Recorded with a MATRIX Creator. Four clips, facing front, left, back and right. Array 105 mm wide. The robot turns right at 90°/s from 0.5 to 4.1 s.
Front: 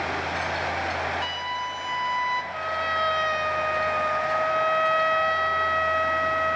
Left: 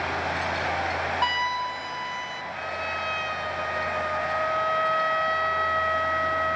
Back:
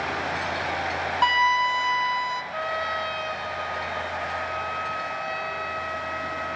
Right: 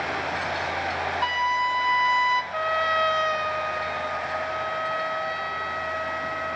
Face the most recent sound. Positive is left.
turn(degrees=20)